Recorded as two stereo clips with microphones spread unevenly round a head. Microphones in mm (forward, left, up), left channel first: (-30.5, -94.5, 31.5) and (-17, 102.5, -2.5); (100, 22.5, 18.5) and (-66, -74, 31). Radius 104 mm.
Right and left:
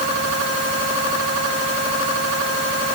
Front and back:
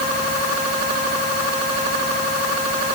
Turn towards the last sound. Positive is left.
No sound to turn to.